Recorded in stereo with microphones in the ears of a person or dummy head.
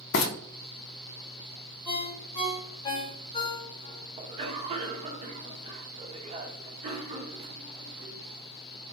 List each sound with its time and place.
0.1 s frying: 65° left (ahead or behind), 0.7 m
1.9 s a ringtone: 30° left (ahead or behind), 1.6 m
4.2 s a cough: 30° right (ahead or behind), 0.9 m